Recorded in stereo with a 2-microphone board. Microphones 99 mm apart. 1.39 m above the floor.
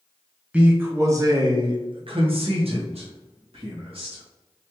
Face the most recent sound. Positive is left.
turn(degrees=-70)  # may be behind; listen again after turning